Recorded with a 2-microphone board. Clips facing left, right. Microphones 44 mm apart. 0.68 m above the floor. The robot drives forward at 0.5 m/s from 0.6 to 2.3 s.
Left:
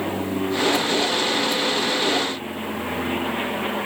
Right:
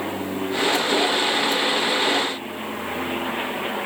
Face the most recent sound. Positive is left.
No sound to turn to.